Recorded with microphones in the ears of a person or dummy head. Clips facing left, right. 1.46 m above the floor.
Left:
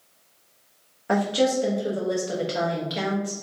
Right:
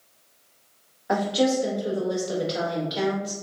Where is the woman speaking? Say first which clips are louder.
Even; 35° left (ahead or behind), 1.2 m.